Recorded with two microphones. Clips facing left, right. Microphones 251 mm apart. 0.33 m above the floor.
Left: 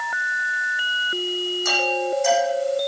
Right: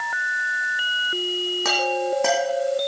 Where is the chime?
70° right (ahead or behind), 4.5 m.